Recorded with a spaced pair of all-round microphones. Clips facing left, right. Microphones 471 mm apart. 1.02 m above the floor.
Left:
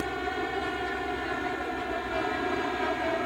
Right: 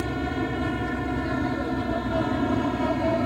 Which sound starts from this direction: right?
An aircraft, at 0.0 s.